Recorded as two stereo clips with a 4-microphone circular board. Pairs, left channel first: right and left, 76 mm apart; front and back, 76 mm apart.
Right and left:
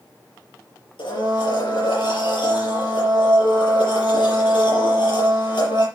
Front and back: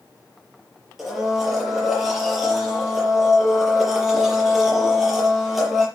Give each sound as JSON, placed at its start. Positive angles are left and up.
{"t": 1.0, "sound": "a blender", "azimuth_deg": -95, "distance_m": 6.0}